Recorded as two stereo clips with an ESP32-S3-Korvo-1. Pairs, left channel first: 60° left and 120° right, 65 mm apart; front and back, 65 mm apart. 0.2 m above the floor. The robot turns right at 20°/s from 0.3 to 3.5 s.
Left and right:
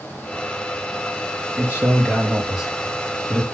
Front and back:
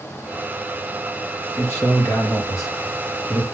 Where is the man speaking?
55° right, 4.5 m; by 3.4 s 15° right, 4.5 m.